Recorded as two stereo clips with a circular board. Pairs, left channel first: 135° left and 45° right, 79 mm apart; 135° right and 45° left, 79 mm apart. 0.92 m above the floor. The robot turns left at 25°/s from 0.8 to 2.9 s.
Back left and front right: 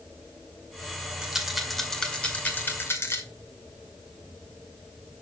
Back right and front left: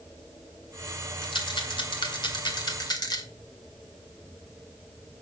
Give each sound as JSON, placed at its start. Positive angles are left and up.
{"t": 1.2, "sound": "a rattle", "azimuth_deg": -125, "distance_m": 2.0}